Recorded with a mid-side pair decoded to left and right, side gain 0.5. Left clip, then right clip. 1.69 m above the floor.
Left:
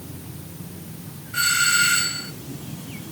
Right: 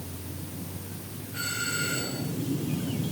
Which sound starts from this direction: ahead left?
A doorbell, at 1.3 s.